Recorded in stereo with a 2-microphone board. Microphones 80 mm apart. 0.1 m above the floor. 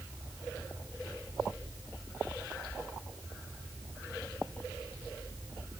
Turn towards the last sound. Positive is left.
No sound to turn to.